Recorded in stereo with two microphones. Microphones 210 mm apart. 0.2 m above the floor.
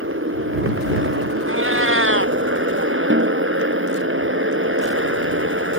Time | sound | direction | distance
0.0 | a motorcycle | 85° right | ?
1.5 | a cat meowing | 90° right | ?
3.1 | a snare drum | 70° right (ahead or behind) | ?